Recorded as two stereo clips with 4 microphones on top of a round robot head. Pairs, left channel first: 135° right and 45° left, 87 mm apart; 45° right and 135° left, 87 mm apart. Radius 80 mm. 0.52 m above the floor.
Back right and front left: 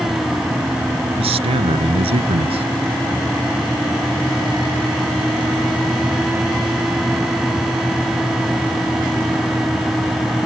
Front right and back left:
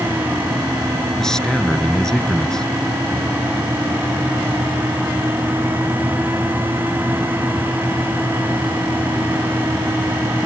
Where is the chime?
I don't hear a chime.